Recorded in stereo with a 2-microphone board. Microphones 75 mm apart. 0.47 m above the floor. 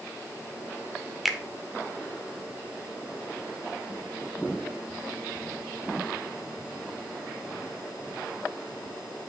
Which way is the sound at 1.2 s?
Centre (ahead or behind).